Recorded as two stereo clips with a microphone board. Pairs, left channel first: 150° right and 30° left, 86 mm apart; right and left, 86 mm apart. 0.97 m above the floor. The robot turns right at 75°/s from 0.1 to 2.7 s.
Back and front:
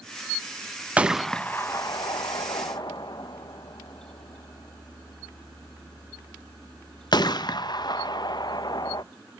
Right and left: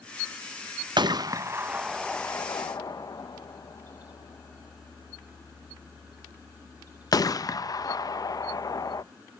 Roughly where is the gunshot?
Left.